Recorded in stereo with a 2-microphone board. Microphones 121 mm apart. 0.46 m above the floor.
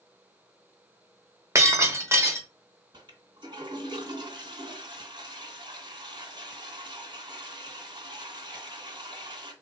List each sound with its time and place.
1.6 s breaking glass: 25° right (ahead or behind), 0.9 m
2.9 s a toilet flushing: 45° right (ahead or behind), 2.5 m